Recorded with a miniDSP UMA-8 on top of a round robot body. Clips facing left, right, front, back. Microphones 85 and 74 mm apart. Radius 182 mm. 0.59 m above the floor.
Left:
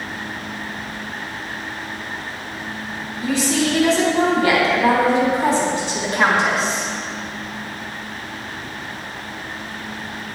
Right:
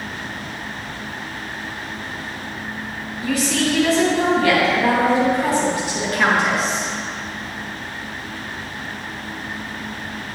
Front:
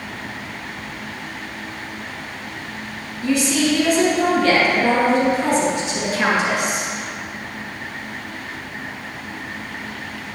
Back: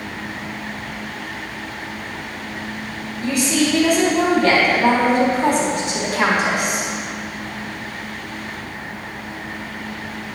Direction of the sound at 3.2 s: 155° left.